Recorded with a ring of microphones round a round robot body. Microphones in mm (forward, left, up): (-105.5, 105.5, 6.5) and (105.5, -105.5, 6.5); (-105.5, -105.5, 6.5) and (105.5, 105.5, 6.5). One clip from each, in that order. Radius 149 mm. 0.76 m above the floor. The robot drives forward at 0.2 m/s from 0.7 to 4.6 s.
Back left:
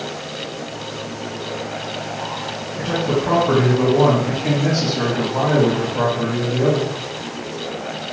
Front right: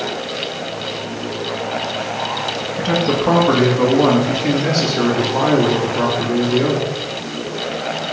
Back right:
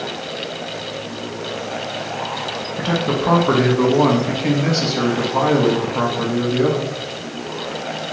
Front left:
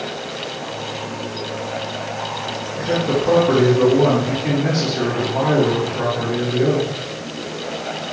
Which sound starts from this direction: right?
A man speaking, at 2.8 s.